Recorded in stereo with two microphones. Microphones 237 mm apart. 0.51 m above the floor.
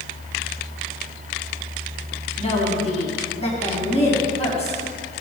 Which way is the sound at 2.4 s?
25° left (ahead or behind).